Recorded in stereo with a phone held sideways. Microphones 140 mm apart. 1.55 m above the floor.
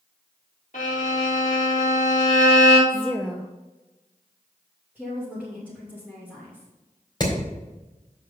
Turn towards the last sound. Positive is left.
turn(degrees=30)  # may be behind; listen again after turning